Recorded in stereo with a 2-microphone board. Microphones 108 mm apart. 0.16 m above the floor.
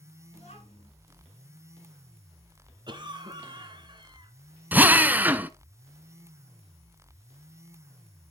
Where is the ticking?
I don't hear ticking.